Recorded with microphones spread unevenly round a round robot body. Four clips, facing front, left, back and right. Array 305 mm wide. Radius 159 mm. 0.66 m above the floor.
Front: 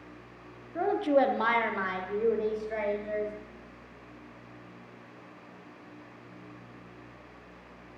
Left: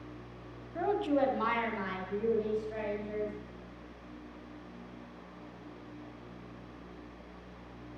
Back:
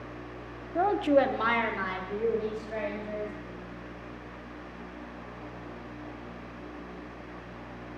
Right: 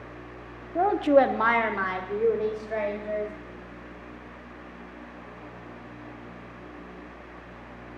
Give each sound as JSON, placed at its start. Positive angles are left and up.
{"t": 0.8, "sound": "a woman speaking", "azimuth_deg": -110, "distance_m": 0.6}